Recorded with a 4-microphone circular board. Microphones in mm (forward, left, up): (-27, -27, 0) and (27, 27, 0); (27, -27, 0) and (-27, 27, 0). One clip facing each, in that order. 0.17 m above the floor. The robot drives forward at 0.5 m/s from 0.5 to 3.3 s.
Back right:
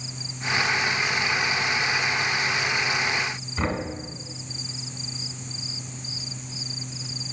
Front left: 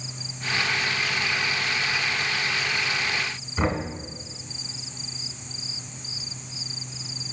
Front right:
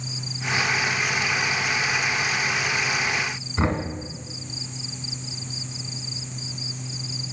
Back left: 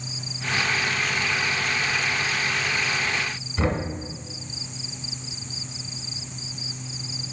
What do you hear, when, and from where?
3.6 s knocking: 35° right, 1.3 m